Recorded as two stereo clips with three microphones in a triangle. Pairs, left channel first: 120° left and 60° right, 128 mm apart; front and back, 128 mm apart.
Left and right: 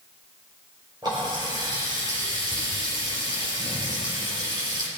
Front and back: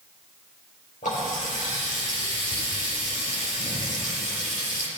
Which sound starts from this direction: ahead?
A running tap, at 1.0 s.